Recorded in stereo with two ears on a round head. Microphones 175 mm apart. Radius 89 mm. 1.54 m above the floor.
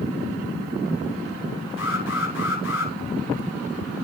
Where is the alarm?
80° left, 8.5 m.